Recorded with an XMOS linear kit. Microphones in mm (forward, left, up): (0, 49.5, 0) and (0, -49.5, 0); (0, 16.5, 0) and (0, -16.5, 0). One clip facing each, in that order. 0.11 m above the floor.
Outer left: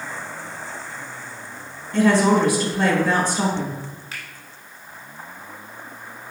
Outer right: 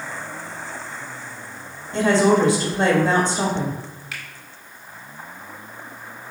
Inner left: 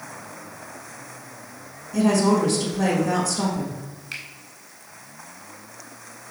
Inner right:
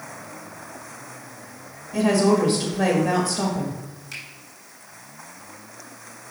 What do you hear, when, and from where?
1.9 s a woman speaking: 25° right (ahead or behind), 1.3 m
4.1 s a finger snap: 30° left (ahead or behind), 1.7 m